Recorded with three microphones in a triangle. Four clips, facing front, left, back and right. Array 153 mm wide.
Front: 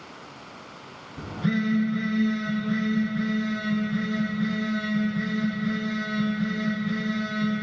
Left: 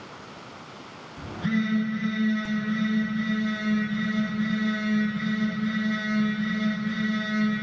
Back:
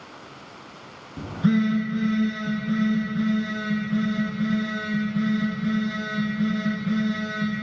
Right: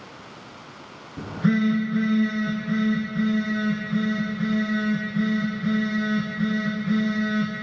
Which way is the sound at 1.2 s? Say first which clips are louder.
Right 5 dB, back 5 dB; 145° right.